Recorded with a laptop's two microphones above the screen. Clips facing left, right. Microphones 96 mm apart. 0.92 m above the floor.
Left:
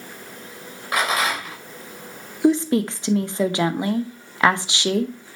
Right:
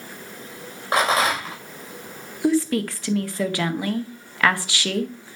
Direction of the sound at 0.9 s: 30° right (ahead or behind).